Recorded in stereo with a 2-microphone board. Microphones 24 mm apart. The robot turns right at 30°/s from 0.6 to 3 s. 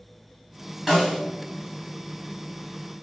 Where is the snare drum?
15° right (ahead or behind), 1.5 m; by 1.2 s 25° right (ahead or behind), 1.5 m.